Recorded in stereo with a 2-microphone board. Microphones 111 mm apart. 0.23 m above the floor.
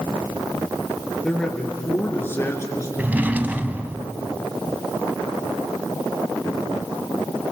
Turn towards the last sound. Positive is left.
turn(degrees=-15)  # may be behind; listen again after turning